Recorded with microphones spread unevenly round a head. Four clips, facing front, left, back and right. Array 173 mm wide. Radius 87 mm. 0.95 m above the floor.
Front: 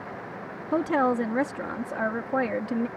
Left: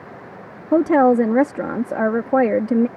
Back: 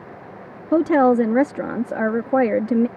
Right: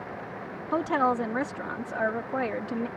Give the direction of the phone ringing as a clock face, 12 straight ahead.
I don't hear a phone ringing.